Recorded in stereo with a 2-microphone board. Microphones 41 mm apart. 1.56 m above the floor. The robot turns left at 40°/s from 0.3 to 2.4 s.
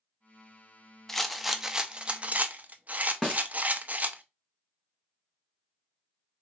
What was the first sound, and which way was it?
A rattle, 10° left.